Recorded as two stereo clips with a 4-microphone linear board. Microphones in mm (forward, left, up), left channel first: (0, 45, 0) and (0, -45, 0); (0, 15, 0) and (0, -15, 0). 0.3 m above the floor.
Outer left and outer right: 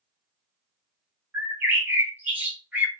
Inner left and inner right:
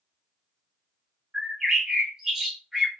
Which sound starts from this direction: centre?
A bird, at 1.3 s.